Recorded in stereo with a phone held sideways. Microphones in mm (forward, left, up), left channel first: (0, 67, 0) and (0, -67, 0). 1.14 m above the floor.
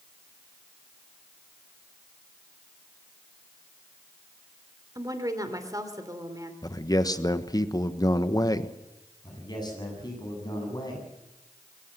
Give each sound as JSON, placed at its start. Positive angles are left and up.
{"t": 5.0, "sound": "a woman speaking", "side_deg": -25, "distance_m": 3.0}
{"t": 6.6, "sound": "a man speaking", "side_deg": 30, "distance_m": 1.2}
{"t": 9.2, "sound": "a man speaking", "side_deg": 30, "distance_m": 8.0}